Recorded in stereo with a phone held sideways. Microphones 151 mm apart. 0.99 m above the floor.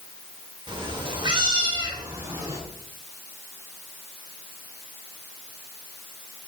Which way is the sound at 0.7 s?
30° right (ahead or behind).